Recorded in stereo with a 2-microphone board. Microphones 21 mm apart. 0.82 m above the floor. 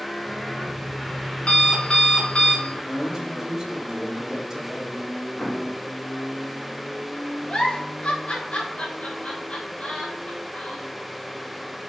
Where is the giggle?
70° left (ahead or behind), 3.5 m.